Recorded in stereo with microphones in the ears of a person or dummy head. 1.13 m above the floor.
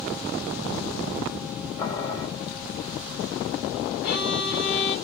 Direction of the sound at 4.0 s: 65° left (ahead or behind).